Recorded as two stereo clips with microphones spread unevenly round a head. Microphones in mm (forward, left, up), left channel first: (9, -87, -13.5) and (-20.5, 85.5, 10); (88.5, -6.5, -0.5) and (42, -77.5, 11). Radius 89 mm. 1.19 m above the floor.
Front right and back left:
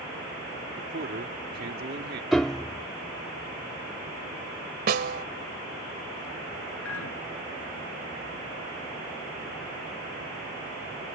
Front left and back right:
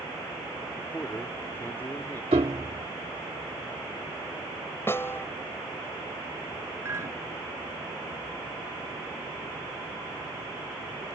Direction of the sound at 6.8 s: 65° right.